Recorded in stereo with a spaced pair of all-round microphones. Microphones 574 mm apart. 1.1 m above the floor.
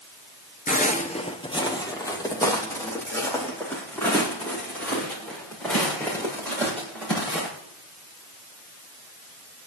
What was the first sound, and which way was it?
Footsteps, 15° left (ahead or behind).